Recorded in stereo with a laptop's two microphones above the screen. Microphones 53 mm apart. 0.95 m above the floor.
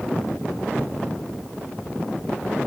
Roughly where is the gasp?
I don't hear a gasp.